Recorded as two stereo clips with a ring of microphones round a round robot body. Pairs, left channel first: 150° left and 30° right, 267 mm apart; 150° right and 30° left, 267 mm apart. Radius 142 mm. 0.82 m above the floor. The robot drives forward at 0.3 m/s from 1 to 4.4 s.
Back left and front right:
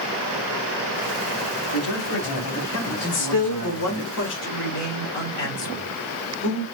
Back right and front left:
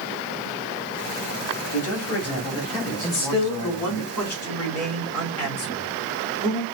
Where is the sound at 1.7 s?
Straight behind, 2.5 m.